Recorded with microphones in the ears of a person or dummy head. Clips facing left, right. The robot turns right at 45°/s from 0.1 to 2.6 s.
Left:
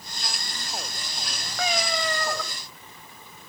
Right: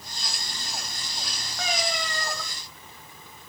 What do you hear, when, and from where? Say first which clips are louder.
1.6 s a cat meowing: left 3 dB; 75° left, 1.6 m; by 2.4 s 115° left, 1.6 m